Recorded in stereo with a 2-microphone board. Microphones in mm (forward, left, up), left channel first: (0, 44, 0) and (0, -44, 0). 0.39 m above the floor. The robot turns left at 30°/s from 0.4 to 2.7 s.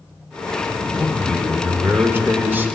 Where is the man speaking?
10° right (ahead or behind), 0.9 m; by 2.7 s 20° right (ahead or behind), 0.9 m.